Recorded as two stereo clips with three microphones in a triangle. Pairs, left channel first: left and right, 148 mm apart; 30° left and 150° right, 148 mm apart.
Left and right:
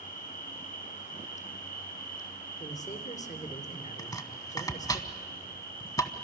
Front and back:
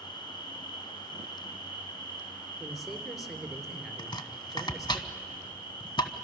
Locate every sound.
0.0 s an insect: 90° left, 6 m
2.6 s a man speaking: 120° left, 2.5 m
4.0 s chopping: 50° left, 1.0 m